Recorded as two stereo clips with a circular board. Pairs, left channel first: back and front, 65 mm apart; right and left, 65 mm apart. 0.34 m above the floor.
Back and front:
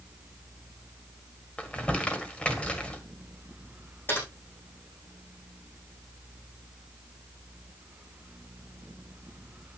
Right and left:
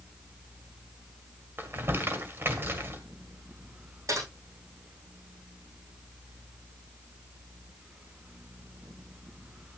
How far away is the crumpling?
About 1.8 m.